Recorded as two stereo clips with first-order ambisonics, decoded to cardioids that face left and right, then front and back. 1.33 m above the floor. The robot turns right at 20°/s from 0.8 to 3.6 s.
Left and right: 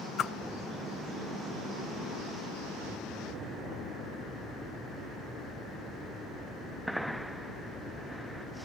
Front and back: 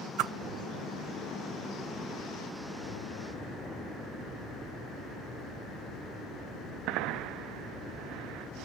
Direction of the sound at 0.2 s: 150° left.